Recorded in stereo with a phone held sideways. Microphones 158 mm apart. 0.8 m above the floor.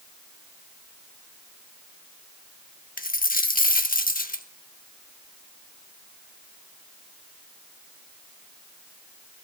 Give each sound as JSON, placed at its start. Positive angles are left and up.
{"t": 3.0, "sound": "a dropped coin", "side_deg": 65, "distance_m": 0.7}